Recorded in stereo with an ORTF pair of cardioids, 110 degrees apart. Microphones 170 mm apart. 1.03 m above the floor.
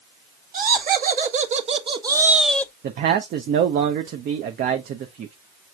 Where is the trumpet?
I don't hear a trumpet.